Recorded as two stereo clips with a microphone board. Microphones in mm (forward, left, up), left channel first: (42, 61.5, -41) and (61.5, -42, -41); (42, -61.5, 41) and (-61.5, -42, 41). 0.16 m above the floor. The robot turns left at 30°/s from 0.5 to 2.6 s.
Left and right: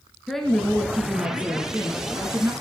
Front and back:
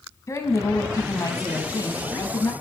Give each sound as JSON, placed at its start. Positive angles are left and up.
{"t": 0.3, "sound": "a woman speaking", "azimuth_deg": 15, "distance_m": 1.5}